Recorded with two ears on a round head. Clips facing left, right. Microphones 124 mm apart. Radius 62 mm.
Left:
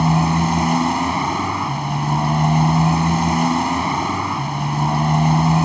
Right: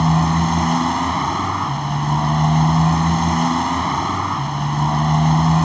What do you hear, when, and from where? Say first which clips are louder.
0.0 s a motorcycle: even; 10° left (ahead or behind)